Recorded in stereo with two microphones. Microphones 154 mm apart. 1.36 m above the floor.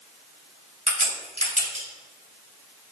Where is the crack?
50° right (ahead or behind), 2 m.